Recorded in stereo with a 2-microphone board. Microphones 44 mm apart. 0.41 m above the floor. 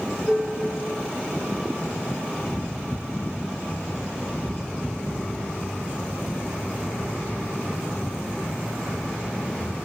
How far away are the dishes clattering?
About 3.5 m.